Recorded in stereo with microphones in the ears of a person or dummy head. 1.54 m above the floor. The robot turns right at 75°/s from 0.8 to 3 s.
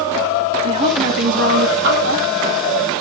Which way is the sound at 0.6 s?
140° right.